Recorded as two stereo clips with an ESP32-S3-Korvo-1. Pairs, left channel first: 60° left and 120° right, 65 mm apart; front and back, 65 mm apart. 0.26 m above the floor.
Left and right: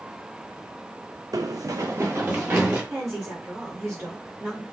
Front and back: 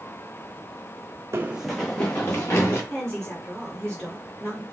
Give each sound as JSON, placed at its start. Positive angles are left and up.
{"t": 1.3, "sound": "running footsteps", "azimuth_deg": -135, "distance_m": 0.7}
{"t": 2.9, "sound": "a woman speaking", "azimuth_deg": -75, "distance_m": 3.5}